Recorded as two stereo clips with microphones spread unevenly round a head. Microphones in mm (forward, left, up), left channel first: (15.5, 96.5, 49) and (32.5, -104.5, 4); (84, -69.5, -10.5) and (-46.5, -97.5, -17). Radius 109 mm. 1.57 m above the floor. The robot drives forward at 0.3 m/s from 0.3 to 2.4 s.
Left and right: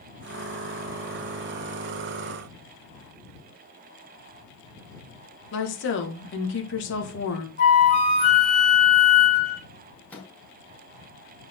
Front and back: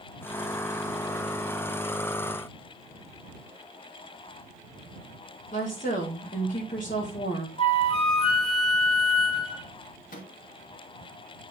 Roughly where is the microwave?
Ahead.